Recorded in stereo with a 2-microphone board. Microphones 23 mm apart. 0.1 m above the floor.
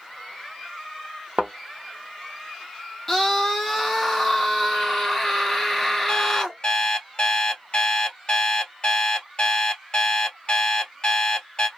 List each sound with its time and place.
1.4 s a thud: 60° right (ahead or behind), 0.8 m
3.1 s a scream: 10° left (ahead or behind), 1.6 m
6.1 s an alarm clock: 40° left (ahead or behind), 1.4 m